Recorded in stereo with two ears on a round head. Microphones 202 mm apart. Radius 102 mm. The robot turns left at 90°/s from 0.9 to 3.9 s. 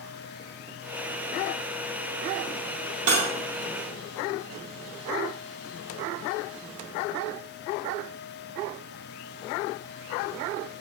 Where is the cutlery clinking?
70° right (ahead or behind), 0.6 m; by 3.3 s 55° right (ahead or behind), 0.6 m.